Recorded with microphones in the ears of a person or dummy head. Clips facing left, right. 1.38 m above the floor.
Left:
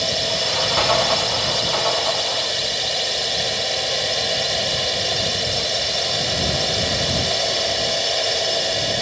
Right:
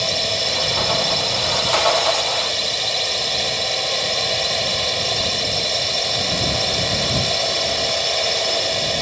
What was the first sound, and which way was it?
A drone, 5° left (ahead or behind).